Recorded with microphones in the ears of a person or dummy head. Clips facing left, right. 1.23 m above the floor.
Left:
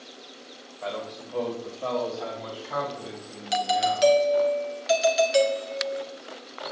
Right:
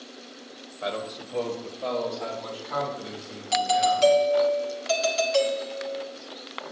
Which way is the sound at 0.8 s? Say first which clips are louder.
Right 2 dB; 15° right (ahead or behind).